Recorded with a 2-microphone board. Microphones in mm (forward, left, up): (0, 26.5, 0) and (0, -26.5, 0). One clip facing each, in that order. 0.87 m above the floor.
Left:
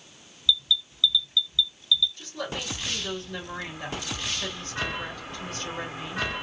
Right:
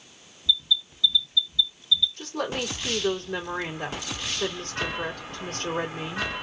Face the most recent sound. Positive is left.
turn(degrees=-70)  # may be behind; listen again after turning